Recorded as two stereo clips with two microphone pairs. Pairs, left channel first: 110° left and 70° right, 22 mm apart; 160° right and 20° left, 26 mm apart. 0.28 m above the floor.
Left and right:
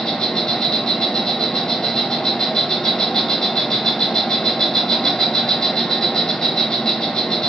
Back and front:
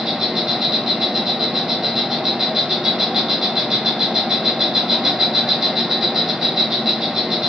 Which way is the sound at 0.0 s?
80° left.